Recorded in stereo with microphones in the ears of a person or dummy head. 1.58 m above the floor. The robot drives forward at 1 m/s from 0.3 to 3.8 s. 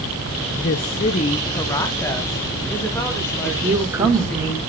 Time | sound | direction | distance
0.6 | a woman speaking | 45° left (ahead or behind) | 0.6 m
3.5 | a woman speaking | 15° right (ahead or behind) | 1.8 m